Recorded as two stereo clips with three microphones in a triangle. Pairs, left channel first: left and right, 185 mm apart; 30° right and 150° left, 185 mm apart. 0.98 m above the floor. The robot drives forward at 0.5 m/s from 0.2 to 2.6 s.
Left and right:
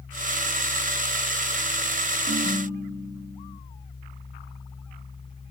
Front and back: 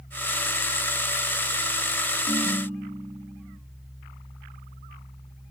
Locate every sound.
2.3 s a ringtone: 100° right, 7 m